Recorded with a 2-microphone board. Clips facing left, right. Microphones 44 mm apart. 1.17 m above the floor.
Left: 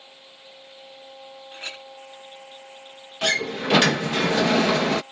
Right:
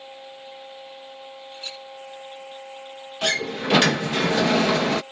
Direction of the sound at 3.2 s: 10° left (ahead or behind).